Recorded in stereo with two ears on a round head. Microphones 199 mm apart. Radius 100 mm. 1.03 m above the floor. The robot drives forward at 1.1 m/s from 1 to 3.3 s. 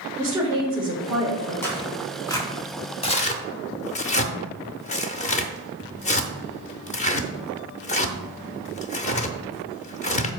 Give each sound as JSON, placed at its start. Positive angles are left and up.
{"t": 0.2, "sound": "a woman speaking", "side_deg": -15, "distance_m": 3.5}
{"t": 1.6, "sound": "tearing paper", "side_deg": 10, "distance_m": 2.5}